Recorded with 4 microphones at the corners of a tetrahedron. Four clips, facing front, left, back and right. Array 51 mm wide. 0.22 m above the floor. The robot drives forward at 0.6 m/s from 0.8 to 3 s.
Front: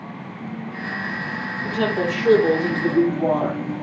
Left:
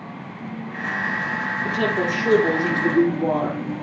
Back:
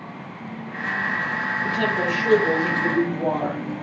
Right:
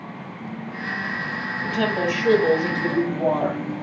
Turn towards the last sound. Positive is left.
turn(degrees=-85)